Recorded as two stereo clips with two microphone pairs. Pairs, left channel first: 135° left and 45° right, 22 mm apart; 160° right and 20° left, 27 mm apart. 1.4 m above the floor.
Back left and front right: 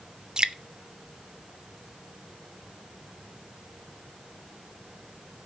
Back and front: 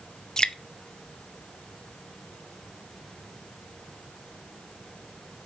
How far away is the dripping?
About 0.7 m.